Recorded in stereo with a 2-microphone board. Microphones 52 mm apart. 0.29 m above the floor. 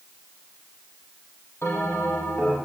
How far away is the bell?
About 4.5 m.